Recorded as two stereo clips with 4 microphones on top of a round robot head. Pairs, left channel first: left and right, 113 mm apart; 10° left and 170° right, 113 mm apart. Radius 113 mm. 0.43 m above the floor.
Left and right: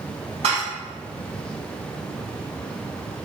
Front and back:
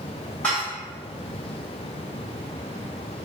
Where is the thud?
I don't hear a thud.